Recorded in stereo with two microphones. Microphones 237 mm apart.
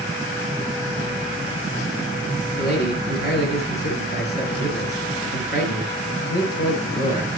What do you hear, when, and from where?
2.6 s a man speaking: 45° left (ahead or behind), 6 m